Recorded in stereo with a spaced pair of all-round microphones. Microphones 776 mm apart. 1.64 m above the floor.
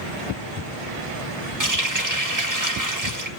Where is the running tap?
25° right (ahead or behind), 1.5 m.